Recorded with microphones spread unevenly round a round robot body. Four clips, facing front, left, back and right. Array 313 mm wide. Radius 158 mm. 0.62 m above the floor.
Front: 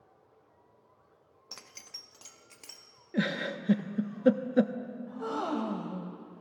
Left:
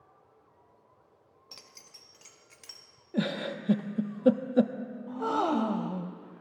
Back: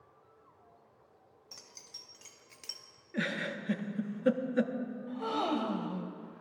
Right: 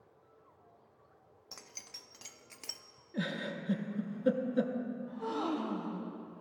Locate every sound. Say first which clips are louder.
1.5 s keys jangling: right 2 dB, front 6 dB; 15° right, 0.5 m; by 2.8 s 80° right, 0.9 m
3.1 s a giggle: left 6 dB, front 4 dB; 50° left, 0.6 m
5.1 s a gasp: left 9 dB, back 1 dB; 85° left, 0.6 m